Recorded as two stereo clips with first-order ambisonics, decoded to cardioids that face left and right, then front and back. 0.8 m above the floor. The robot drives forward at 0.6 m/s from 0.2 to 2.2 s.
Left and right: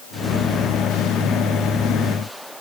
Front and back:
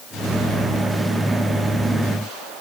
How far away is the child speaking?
I don't hear a child speaking.